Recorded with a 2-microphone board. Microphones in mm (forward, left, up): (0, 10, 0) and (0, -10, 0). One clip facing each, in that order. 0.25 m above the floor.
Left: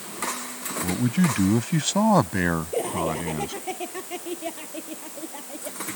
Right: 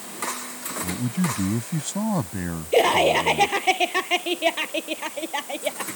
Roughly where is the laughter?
Right.